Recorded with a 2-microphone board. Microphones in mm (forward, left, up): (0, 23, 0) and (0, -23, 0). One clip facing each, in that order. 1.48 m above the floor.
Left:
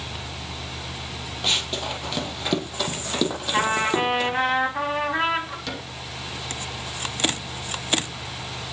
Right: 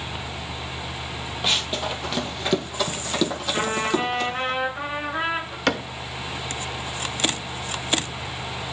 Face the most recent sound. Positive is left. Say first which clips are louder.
# right 9 dB
turn(degrees=-60)  # may be behind; listen again after turning